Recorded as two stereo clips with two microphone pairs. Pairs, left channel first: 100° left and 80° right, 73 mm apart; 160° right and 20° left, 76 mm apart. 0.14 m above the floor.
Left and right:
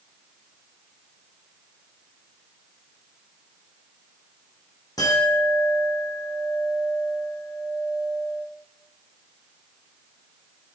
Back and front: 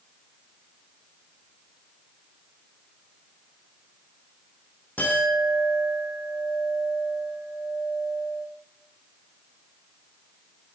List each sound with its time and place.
5.0 s a clink: 130° left, 4.5 m